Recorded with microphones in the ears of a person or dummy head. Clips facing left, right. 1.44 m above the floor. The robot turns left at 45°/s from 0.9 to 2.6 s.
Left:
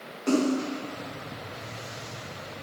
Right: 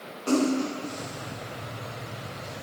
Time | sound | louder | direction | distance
0.3 | a splash | even | 20° left (ahead or behind) | 1.7 m